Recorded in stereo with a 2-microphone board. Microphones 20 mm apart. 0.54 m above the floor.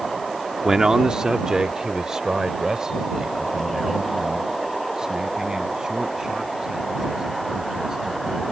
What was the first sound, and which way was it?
A man speaking, 30° right (ahead or behind).